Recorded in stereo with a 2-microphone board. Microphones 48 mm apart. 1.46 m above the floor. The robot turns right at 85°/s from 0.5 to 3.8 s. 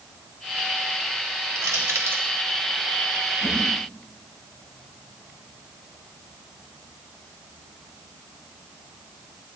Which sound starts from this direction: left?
A whoosh, at 3.4 s.